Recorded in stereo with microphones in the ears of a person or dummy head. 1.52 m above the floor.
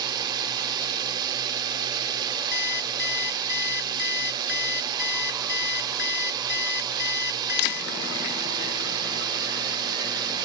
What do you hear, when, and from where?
0.0 s a drone: 15° right (ahead or behind)
2.5 s an alarm clock: 50° left (ahead or behind)